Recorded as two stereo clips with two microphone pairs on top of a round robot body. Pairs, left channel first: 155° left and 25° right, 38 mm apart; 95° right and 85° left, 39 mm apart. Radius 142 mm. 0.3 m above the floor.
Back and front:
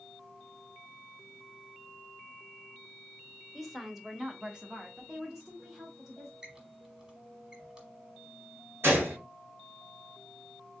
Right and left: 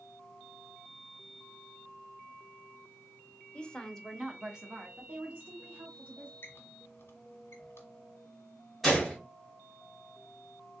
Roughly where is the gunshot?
Ahead.